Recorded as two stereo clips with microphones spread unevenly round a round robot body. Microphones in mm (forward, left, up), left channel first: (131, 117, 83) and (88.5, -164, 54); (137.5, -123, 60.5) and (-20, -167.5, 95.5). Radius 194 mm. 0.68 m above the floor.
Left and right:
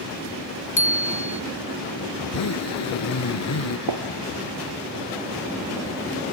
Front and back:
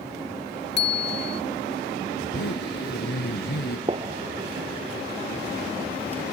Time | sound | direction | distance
0.8 | a bicycle bell | 20° left | ?
2.2 | a zipper | 55° left | ?
3.9 | a gunshot | 110° right | ?